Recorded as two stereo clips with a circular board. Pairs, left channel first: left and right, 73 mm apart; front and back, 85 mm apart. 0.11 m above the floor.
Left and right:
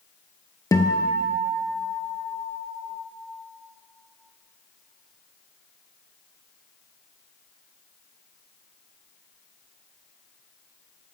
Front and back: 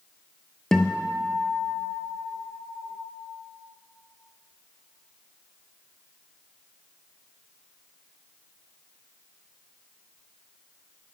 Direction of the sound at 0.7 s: 80° left.